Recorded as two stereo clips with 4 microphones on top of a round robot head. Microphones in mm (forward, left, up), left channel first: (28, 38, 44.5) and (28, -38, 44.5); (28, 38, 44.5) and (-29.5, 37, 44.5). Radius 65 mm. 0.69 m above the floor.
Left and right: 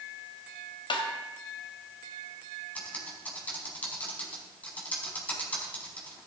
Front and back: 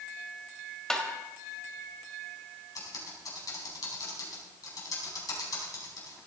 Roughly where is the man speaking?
No man speaking in this recording.